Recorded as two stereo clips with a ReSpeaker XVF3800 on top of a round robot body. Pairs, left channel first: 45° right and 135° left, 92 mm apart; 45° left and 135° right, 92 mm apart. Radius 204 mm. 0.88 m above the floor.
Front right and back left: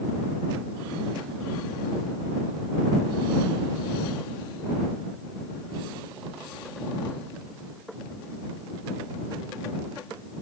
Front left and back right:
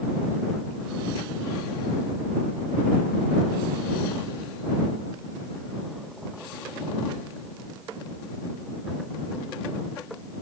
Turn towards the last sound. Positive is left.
No sound to turn to.